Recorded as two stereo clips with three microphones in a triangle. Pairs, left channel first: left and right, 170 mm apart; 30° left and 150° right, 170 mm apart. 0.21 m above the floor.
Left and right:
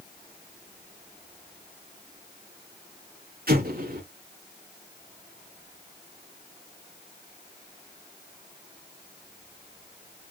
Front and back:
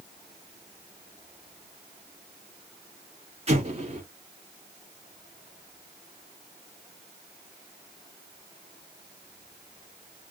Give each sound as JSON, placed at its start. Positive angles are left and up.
{"t": 3.5, "sound": "an explosion", "azimuth_deg": -105, "distance_m": 1.8}